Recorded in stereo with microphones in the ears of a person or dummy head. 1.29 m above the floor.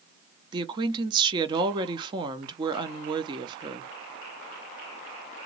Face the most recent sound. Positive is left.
turn(degrees=-20)  # may be behind; listen again after turning